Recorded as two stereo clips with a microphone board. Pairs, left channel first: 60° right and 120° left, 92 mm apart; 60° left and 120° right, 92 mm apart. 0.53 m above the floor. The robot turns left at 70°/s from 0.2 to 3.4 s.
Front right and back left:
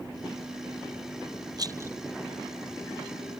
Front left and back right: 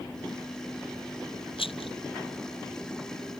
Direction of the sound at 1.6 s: 75° left.